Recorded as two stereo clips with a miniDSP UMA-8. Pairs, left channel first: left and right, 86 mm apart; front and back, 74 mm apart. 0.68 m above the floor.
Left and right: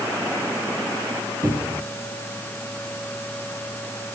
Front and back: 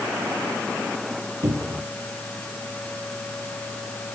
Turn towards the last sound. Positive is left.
turn(degrees=-145)